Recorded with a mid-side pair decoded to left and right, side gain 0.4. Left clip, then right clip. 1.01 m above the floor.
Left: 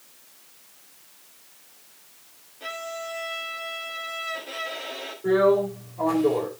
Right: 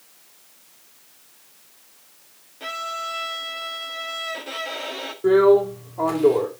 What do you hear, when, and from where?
2.6 s a violin: 50° right, 1.9 m
5.2 s a drill: 70° right, 4 m